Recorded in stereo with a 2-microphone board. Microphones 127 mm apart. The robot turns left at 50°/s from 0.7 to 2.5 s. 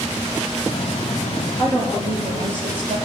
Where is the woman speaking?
20° right, 6.5 m; by 3.0 s 65° right, 6.5 m.